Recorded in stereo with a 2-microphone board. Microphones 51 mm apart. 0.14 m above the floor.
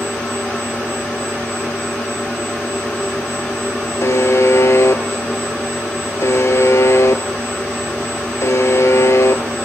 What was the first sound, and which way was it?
A buzzer, 70° left (ahead or behind).